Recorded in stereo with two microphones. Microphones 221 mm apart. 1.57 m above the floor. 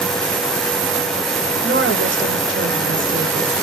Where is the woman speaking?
70° right (ahead or behind), 1.2 m.